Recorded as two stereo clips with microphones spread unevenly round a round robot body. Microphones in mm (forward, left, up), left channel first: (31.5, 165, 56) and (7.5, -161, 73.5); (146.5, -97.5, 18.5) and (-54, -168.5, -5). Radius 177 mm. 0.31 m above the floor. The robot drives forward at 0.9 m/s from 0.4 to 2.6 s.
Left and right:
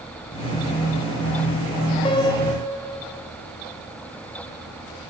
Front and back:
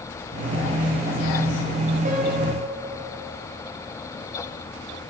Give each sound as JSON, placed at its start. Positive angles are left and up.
{"t": 2.0, "sound": "a piano", "azimuth_deg": 155, "distance_m": 1.0}